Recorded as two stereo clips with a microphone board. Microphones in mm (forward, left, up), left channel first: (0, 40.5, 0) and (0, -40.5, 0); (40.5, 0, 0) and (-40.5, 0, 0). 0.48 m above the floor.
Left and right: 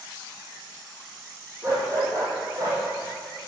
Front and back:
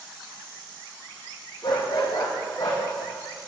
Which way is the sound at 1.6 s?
35° right.